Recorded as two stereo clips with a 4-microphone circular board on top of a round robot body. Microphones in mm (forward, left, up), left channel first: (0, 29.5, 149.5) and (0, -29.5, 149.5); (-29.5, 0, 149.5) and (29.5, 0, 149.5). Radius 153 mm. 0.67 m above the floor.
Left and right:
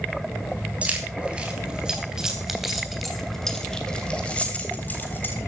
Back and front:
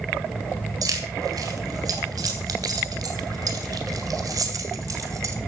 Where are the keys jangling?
20° right, 4 m; by 5.3 s 35° left, 3 m.